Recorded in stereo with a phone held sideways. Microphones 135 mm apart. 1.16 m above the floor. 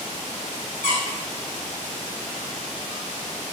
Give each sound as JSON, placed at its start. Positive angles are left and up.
{"t": 0.8, "sound": "a squeak", "side_deg": 80, "distance_m": 1.5}